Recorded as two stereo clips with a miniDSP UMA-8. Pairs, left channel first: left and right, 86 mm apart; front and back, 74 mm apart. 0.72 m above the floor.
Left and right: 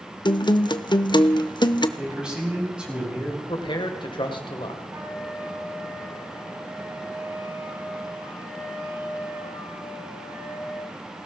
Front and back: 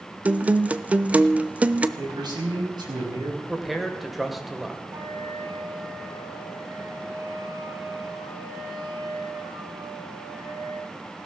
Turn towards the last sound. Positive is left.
turn(degrees=-150)